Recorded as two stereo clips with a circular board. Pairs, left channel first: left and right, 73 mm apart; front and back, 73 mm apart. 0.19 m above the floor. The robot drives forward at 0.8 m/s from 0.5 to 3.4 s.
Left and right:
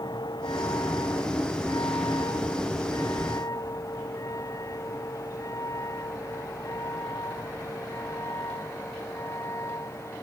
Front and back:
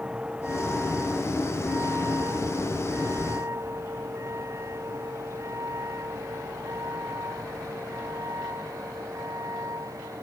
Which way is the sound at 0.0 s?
105° left.